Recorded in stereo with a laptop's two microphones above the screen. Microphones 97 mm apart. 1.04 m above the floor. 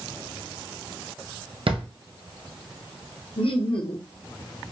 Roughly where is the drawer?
Right.